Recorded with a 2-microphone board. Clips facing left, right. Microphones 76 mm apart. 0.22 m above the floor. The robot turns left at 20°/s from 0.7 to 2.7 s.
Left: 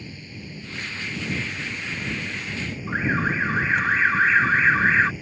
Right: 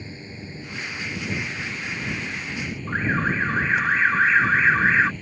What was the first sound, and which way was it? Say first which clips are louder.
A drone: right 1 dB; 150° right.